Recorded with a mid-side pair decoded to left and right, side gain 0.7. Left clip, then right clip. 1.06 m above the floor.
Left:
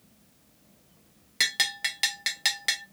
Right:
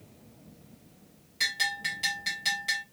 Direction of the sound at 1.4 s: 50° left.